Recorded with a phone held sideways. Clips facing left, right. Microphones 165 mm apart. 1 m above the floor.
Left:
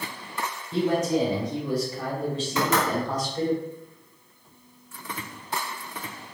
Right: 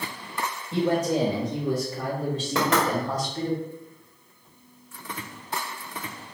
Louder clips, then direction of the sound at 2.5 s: Right 1 dB; 65° right (ahead or behind).